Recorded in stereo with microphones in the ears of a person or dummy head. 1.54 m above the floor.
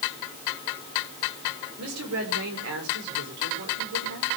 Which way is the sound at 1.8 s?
70° right (ahead or behind).